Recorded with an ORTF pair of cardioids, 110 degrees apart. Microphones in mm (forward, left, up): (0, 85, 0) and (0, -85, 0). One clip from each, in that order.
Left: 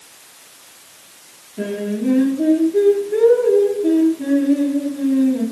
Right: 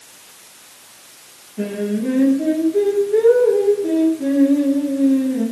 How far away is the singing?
About 1.5 m.